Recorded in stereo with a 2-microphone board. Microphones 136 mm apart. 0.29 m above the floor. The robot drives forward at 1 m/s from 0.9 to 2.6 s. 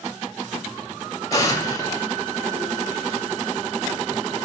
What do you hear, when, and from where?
1.3 s an explosion: 25° left (ahead or behind), 1.5 m